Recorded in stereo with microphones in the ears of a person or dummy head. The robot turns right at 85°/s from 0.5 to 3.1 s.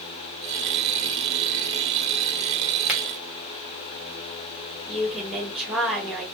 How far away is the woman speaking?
About 1.0 m.